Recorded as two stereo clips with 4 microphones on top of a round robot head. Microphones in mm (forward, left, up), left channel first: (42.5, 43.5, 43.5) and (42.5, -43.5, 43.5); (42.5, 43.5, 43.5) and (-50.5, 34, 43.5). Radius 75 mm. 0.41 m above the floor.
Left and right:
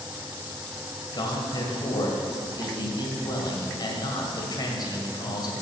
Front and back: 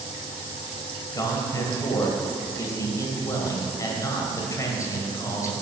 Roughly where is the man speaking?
Ahead left.